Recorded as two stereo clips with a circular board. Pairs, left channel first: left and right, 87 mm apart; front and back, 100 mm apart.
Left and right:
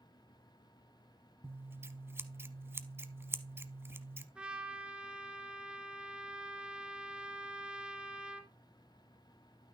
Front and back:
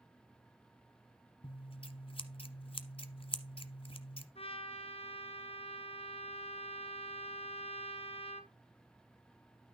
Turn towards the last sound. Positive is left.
turn(degrees=-10)